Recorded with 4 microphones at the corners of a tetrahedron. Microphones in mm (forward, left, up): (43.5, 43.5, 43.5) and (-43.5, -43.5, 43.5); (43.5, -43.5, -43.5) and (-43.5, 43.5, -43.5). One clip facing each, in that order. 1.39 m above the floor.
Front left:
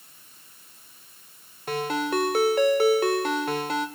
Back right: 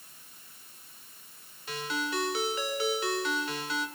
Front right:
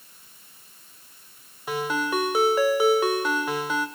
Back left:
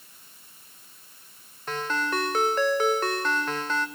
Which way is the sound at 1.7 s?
35° left.